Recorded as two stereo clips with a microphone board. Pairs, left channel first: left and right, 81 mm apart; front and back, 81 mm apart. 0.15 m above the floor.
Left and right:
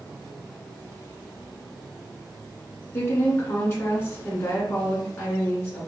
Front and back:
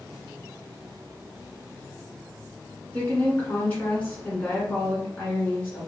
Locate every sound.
2.9 s a woman speaking: 55° left, 1.3 m